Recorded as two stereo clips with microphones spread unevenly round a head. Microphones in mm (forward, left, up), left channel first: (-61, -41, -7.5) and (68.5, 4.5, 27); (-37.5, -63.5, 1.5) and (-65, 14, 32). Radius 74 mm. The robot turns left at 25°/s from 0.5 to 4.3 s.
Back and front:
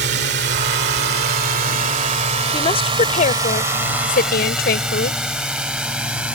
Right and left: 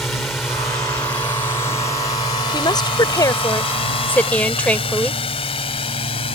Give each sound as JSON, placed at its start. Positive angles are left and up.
{"t": 0.0, "sound": "a drone", "azimuth_deg": 15}
{"t": 2.5, "sound": "a woman speaking", "azimuth_deg": -100}